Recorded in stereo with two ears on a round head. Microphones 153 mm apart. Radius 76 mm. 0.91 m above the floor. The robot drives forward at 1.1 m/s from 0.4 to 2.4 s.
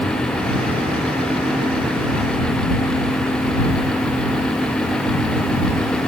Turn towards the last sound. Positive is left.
No sound to turn to.